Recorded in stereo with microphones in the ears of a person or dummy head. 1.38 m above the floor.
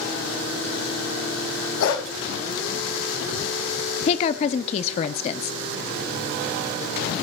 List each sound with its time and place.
1.8 s a dog barking: 75° left (ahead or behind), 4 m
4.1 s a woman speaking: 35° left (ahead or behind), 0.5 m